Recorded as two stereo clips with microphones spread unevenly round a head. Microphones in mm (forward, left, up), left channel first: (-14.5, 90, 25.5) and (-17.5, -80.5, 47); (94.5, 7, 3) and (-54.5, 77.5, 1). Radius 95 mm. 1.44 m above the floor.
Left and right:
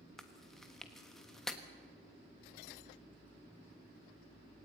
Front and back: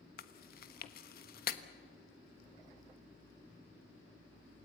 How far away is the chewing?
About 1.3 m.